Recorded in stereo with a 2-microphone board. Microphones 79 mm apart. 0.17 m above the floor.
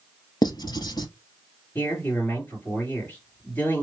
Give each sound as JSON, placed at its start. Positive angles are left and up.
{"t": 0.4, "sound": "writing", "side_deg": 70, "distance_m": 0.8}
{"t": 1.8, "sound": "a man speaking", "side_deg": 20, "distance_m": 3.0}